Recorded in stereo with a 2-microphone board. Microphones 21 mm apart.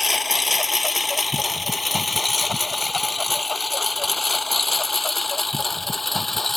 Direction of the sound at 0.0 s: 5° right (ahead or behind).